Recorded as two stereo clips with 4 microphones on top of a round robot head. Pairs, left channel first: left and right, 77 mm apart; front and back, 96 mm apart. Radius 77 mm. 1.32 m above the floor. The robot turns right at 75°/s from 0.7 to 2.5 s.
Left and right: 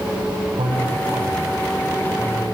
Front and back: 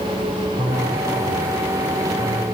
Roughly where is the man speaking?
Right.